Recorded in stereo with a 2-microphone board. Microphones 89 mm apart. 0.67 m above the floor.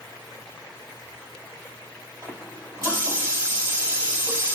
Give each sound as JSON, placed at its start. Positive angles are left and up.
{"t": 2.2, "sound": "a running tap", "side_deg": -35, "distance_m": 2.0}